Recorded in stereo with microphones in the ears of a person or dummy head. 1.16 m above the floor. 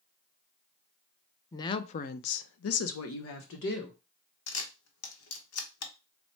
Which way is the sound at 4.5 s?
75° left (ahead or behind).